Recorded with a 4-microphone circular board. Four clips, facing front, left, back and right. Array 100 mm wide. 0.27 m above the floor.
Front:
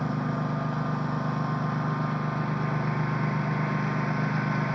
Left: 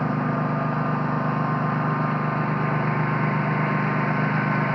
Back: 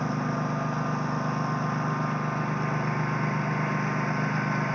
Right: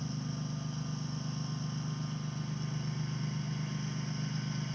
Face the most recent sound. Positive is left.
turn(degrees=95)